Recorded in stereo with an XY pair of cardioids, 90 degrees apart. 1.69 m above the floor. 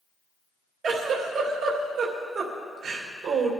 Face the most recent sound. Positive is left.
turn(degrees=-60)